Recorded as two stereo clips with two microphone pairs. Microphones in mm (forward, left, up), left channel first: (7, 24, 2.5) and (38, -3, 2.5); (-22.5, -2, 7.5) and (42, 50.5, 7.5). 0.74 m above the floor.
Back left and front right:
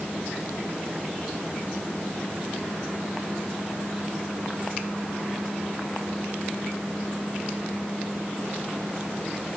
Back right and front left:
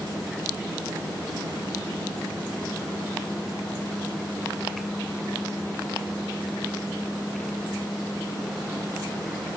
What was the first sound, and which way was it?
Only background noise.